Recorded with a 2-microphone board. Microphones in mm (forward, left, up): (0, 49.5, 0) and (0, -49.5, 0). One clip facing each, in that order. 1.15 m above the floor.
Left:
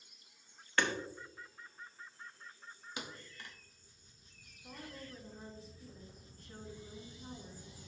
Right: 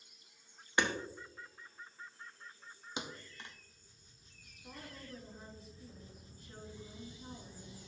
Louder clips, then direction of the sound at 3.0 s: Right 3 dB; 20° right (ahead or behind).